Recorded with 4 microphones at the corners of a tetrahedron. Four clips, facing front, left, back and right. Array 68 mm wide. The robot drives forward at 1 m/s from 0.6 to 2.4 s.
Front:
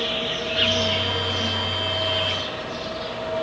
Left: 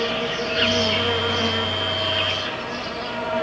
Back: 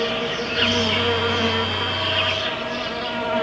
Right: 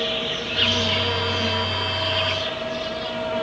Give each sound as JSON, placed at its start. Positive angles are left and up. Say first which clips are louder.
{"t": 0.0, "sound": "an insect", "louder": "left 2 dB, back 3 dB", "azimuth_deg": 140, "distance_m": 1.0}